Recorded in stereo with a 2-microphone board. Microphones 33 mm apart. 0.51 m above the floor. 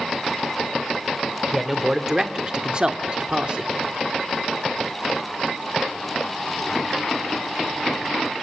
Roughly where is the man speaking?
Centre.